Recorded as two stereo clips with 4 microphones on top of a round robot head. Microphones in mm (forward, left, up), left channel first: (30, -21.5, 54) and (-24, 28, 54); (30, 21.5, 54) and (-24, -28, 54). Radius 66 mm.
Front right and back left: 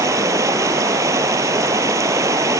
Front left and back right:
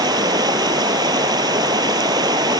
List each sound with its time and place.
0.0 s running water: 170° right